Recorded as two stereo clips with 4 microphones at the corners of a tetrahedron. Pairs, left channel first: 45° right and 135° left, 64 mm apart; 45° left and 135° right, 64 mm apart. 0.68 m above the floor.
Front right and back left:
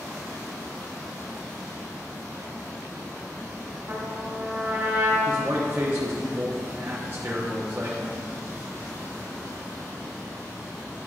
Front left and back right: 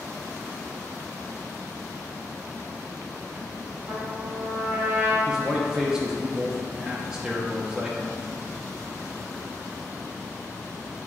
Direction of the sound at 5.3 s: 155° left.